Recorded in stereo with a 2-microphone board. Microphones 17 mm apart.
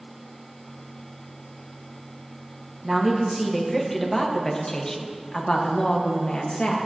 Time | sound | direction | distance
2.8 | a woman speaking | centre (ahead or behind) | 1.9 m